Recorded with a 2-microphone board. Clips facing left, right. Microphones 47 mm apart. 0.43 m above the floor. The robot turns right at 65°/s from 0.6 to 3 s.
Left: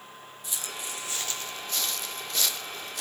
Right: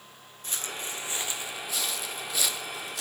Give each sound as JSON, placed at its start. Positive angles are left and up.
{"t": 0.4, "sound": "footsteps", "side_deg": -45, "distance_m": 1.4}